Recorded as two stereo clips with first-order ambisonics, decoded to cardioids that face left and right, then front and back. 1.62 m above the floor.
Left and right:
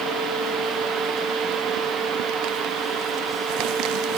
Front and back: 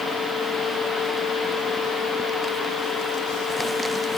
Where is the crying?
No crying in this recording.